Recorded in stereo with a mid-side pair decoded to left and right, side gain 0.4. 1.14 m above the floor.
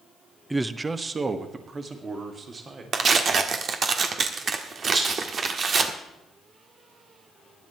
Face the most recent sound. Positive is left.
turn(degrees=-50)